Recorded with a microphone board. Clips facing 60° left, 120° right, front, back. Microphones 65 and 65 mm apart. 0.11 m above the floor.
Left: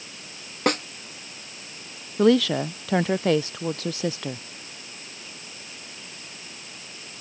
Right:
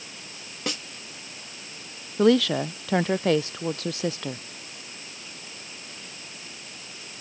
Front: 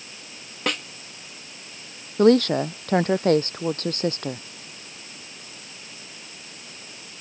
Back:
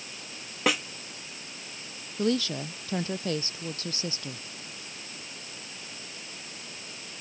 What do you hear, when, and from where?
0.7 s a snare drum: 95° left
2.2 s a woman speaking: 30° right